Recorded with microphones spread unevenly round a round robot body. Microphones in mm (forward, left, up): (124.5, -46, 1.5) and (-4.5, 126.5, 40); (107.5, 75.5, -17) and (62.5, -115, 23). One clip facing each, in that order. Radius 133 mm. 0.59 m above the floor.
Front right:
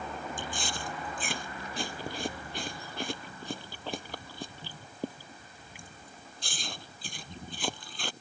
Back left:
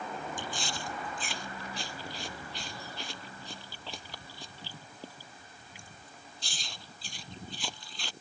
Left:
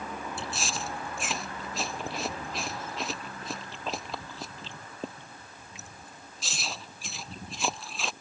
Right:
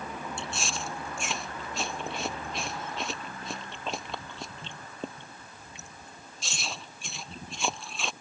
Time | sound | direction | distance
0.4 | chewing | 15° right | ?